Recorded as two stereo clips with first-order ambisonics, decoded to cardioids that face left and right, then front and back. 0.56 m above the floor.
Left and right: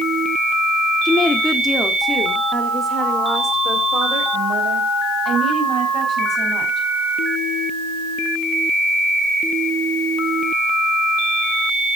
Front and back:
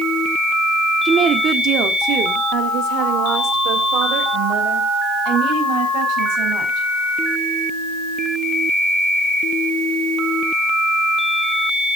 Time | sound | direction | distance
1.1 | a woman speaking | 145° left | 1.1 m